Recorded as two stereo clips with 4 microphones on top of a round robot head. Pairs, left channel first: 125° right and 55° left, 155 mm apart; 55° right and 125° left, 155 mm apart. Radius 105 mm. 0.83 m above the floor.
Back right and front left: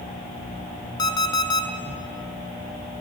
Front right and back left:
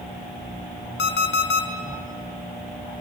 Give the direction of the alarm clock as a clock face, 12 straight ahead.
2 o'clock.